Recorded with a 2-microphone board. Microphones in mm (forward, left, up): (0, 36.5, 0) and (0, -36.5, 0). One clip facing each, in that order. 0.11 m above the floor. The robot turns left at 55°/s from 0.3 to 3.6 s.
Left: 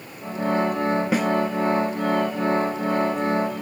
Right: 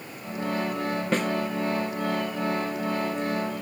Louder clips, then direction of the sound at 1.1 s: Even; 10° left (ahead or behind).